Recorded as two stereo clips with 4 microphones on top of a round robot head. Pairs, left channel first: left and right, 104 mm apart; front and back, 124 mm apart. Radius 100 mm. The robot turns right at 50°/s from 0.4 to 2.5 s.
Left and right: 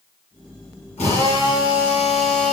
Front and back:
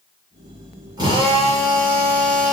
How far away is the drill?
About 7.5 m.